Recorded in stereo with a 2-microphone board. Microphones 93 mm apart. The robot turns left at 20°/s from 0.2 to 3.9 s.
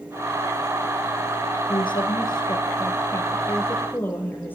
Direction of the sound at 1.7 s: 65° left.